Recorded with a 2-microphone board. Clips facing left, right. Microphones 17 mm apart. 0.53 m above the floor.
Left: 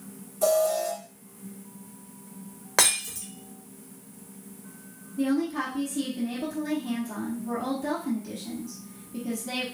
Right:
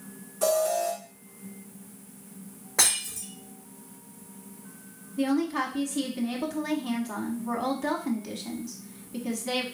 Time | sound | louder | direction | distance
0.4 | an alarm | left 1 dB | 30° right (ahead or behind) | 1.8 m
2.8 | breaking glass | left 2 dB | 55° left (ahead or behind) | 1.3 m
5.2 | a woman speaking | even | 30° right (ahead or behind) | 1.0 m